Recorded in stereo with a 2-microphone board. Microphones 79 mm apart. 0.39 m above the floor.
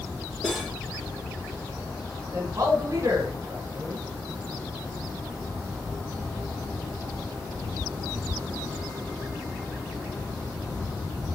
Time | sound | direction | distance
0.4 | cutlery clinking | centre (ahead or behind) | 4.5 m
2.3 | a man speaking | 45° right (ahead or behind) | 1.7 m